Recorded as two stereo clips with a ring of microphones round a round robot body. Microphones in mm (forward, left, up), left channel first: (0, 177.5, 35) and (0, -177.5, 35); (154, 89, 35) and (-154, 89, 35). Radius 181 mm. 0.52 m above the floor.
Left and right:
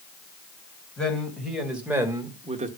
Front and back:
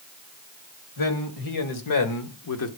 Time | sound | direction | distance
1.0 | a man speaking | 5° left | 3 m